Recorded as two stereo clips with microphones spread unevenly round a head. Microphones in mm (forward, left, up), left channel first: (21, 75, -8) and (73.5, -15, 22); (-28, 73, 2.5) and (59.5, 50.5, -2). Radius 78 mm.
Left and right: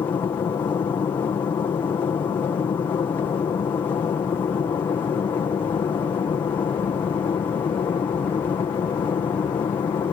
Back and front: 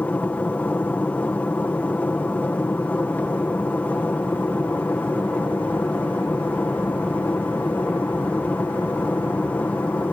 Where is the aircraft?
105° left.